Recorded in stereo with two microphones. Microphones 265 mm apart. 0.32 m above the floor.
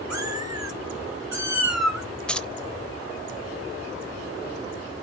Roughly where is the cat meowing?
Right.